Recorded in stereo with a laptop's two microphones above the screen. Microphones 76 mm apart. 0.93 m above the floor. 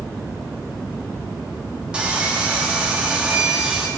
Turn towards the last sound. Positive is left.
turn(degrees=-15)  # may be behind; listen again after turning